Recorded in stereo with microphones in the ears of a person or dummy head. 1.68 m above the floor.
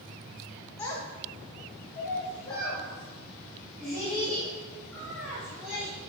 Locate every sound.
0.8 s a child speaking: 20° left (ahead or behind), 1.2 m; by 5.9 s centre (ahead or behind), 2.5 m